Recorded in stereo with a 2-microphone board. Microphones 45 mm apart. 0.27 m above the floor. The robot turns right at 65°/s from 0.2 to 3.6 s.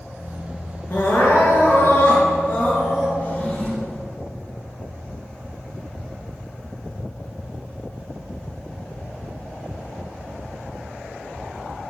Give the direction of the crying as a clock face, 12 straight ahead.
11 o'clock.